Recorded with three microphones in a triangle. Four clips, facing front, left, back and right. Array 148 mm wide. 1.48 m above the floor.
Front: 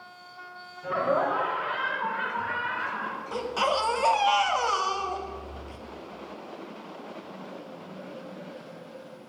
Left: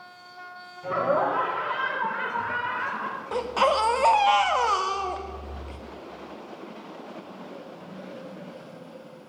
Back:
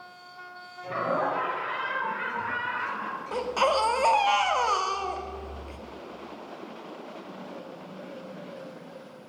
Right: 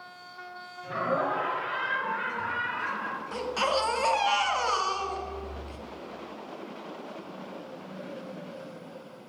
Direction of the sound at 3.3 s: 115° left.